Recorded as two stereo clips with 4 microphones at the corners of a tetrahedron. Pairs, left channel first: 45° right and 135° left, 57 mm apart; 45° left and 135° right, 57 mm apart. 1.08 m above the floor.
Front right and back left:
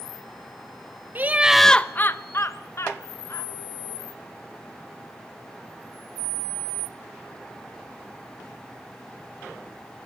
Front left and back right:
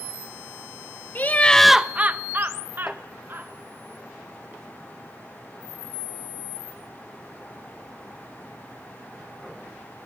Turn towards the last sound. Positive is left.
turn(degrees=-85)